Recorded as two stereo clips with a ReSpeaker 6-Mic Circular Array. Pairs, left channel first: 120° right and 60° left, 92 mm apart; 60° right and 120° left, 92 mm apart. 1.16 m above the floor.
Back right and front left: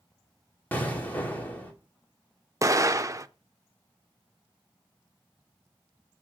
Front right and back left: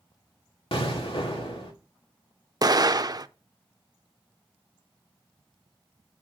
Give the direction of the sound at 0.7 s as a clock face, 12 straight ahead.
2 o'clock.